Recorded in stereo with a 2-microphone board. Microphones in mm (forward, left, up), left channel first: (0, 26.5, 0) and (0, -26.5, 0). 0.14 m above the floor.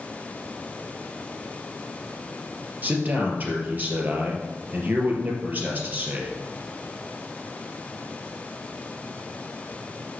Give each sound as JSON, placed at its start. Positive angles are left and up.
{"t": 2.8, "sound": "a man speaking", "side_deg": -35, "distance_m": 3.0}